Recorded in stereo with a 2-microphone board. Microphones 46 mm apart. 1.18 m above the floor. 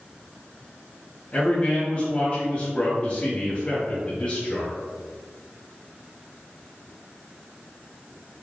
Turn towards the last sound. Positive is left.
turn(degrees=30)  # may be behind; listen again after turning